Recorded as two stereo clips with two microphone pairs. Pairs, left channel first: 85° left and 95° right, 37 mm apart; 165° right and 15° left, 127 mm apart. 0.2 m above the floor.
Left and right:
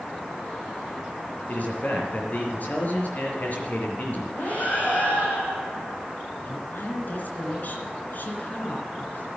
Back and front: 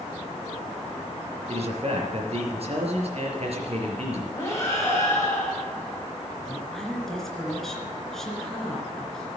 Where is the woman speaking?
110° left, 3 m.